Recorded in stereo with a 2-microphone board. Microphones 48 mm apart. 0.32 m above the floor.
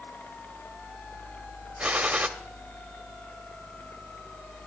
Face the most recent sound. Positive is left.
turn(degrees=-25)  # may be behind; listen again after turning